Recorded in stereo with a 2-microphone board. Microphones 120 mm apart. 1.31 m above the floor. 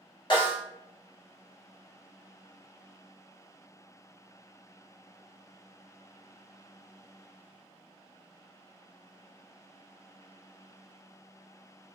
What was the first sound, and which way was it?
A snare drum, 40° left (ahead or behind).